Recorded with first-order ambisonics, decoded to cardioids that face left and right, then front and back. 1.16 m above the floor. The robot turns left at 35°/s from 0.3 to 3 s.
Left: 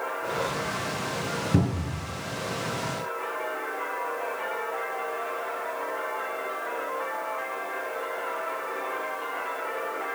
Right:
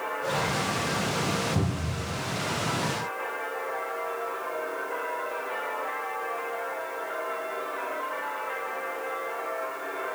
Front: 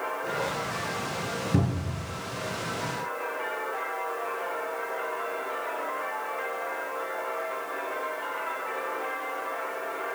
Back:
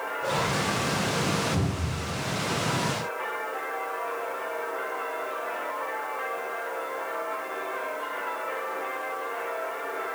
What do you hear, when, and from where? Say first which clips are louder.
1.5 s a cupboard door: left 2 dB, even; 60° left, 4.5 m; by 2.1 s 45° left, 4.5 m